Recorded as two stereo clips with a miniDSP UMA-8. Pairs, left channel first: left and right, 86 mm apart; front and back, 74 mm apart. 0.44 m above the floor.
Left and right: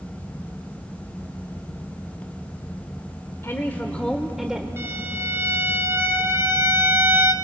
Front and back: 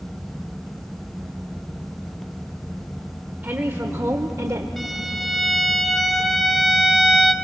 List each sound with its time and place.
3.4 s a woman speaking: 130° left, 1.2 m; by 4.7 s 165° right, 1.2 m
4.8 s a violin: 85° right, 1.1 m